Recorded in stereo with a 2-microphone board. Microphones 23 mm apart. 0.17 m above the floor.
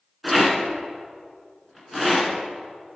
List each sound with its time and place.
0.2 s a rattle: 5° right (ahead or behind), 2 m